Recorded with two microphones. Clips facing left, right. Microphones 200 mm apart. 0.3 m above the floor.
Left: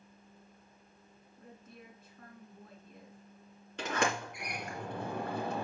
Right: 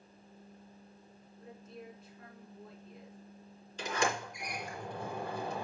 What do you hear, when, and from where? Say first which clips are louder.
1.4 s a woman speaking: right 4 dB; 60° left (ahead or behind), 3.5 m
3.8 s a sliding door: left 1 dB; 70° left (ahead or behind), 2.5 m